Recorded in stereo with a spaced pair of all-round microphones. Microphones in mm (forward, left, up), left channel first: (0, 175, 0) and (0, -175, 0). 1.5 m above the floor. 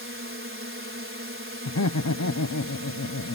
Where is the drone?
35° right (ahead or behind).